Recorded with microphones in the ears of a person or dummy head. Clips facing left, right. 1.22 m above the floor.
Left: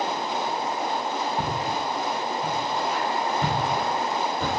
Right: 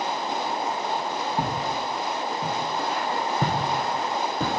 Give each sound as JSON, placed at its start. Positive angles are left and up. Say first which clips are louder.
{"t": 1.4, "sound": "footsteps", "louder": "even", "side_deg": -15, "distance_m": 3.5}